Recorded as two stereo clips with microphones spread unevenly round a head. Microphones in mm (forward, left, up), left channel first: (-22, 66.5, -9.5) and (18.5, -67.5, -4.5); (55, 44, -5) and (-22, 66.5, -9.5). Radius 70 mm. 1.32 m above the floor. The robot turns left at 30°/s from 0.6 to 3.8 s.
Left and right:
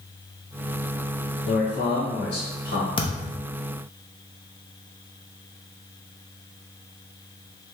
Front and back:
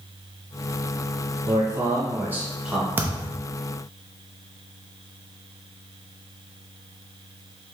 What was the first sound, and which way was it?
A man speaking, 125° left.